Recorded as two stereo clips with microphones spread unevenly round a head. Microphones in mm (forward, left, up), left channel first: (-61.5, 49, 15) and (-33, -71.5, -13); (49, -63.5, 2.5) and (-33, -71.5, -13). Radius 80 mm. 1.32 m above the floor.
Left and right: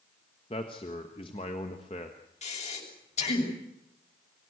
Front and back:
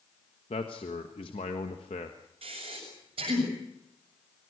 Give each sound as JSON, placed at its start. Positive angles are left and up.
{"t": 0.5, "sound": "a man speaking", "azimuth_deg": 45, "distance_m": 1.3}
{"t": 2.4, "sound": "breathing", "azimuth_deg": 135, "distance_m": 7.0}